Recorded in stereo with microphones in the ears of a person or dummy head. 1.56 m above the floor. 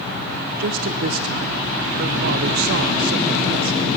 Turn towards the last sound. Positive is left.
turn(degrees=-50)  # may be behind; listen again after turning